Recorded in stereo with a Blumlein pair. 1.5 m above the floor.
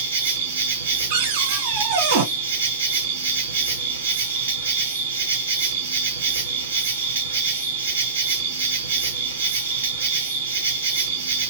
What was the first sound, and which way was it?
An insect, 65° right.